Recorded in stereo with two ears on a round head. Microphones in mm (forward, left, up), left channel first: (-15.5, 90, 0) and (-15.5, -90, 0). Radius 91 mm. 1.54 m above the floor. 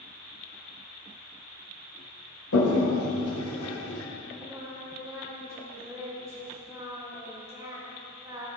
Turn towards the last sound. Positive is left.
turn(degrees=-15)  # may be behind; listen again after turning